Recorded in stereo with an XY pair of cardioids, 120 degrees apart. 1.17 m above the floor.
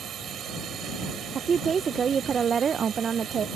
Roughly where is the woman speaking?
Ahead right.